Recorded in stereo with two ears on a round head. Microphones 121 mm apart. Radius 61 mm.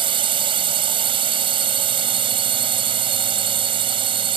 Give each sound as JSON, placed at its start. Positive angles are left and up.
{"t": 0.0, "sound": "a drone", "side_deg": -45}